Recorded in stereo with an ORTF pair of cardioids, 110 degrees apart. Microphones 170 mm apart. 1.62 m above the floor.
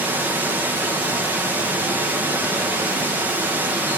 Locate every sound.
0.0 s running water: 10° right, 1.4 m